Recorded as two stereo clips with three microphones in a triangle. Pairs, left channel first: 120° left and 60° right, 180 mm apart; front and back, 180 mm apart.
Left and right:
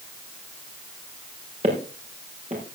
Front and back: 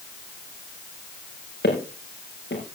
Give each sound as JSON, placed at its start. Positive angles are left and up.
{"t": 1.6, "sound": "footsteps", "azimuth_deg": -10, "distance_m": 7.0}